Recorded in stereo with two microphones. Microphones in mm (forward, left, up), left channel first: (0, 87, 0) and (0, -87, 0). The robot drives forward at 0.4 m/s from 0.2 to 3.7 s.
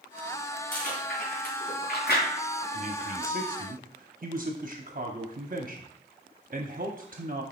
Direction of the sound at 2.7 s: 45° right (ahead or behind).